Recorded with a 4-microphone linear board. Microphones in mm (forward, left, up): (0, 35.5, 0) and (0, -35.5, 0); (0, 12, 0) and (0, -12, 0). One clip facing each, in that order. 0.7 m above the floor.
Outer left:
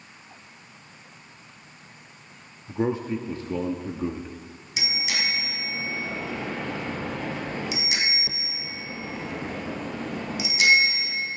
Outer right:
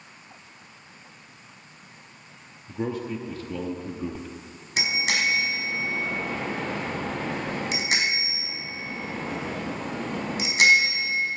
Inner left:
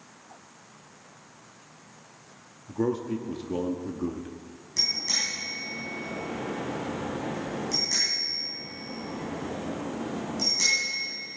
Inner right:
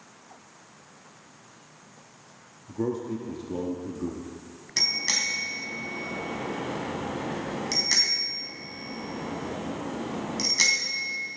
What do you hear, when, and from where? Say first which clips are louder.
2.7 s a man speaking: outer left 4 dB, inner left 2 dB; 25° left (ahead or behind), 0.9 m
4.8 s a bicycle bell: outer right 4 dB, inner right 1 dB; 50° right (ahead or behind), 3.5 m